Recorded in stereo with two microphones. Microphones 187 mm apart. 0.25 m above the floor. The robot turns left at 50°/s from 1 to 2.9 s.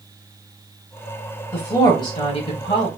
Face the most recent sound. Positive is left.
turn(degrees=85)